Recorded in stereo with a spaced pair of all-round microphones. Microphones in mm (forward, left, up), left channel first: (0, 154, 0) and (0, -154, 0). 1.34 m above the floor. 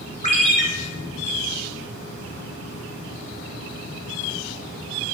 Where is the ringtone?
20° left (ahead or behind), 1.5 m.